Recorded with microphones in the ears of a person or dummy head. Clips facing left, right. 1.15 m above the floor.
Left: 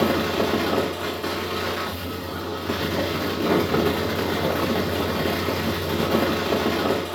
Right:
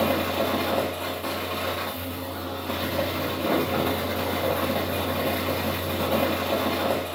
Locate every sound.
0.0 s a fan: 20° left (ahead or behind), 0.9 m